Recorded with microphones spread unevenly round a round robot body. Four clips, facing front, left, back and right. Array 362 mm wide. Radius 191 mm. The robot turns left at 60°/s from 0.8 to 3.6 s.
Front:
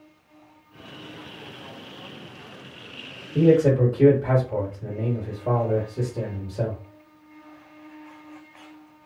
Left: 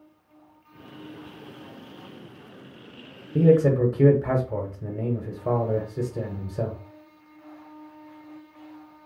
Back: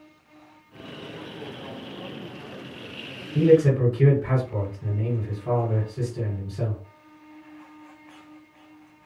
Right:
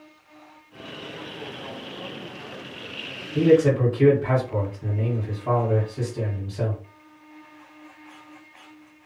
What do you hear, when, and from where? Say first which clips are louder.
3.4 s a man speaking: right 1 dB, even; 90° left, 1.0 m; by 6.8 s 75° left, 1.0 m